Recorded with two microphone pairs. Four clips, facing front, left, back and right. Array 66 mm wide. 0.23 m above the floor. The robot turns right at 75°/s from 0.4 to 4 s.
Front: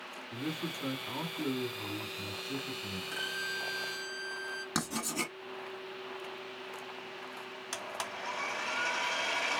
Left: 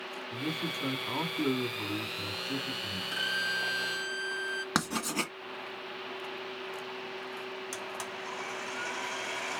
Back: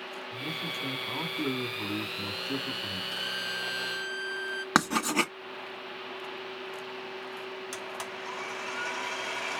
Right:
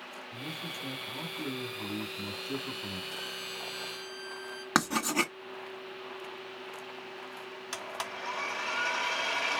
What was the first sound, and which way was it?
A man speaking, 55° left.